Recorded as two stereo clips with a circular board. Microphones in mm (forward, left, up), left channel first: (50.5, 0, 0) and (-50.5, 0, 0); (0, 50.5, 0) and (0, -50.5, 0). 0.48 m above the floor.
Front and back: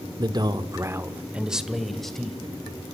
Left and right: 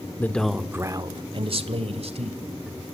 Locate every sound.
0.2 s a man speaking: 155° left, 1.2 m; by 2.4 s 85° right, 2.5 m